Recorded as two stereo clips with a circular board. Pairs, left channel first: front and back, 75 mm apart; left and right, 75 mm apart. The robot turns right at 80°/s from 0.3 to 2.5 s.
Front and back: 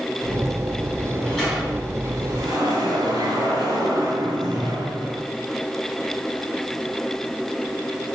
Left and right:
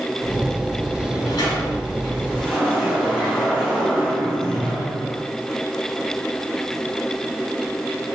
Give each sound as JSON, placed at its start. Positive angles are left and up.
{"t": 1.0, "sound": "a sliding door", "azimuth_deg": 50, "distance_m": 3.5}